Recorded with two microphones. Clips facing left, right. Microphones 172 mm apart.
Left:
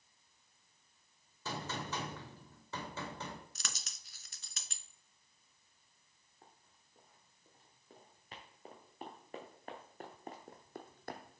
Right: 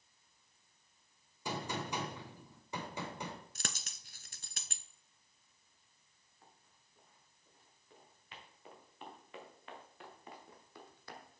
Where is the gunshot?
15° right (ahead or behind), 2 m.